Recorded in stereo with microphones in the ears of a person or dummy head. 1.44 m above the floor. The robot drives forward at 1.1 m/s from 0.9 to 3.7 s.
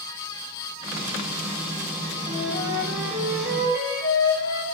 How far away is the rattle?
I don't hear a rattle.